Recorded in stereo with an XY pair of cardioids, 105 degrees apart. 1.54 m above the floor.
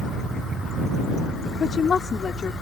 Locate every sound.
1.6 s a woman speaking: 40° left